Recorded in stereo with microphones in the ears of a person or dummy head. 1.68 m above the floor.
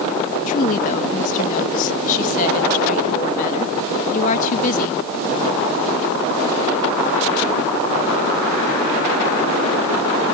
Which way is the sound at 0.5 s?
45° left (ahead or behind).